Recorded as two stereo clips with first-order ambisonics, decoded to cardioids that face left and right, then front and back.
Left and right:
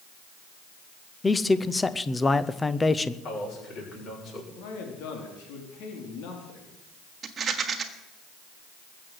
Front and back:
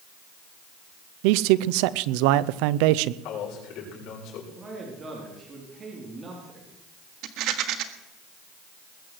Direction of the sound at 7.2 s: 155° right.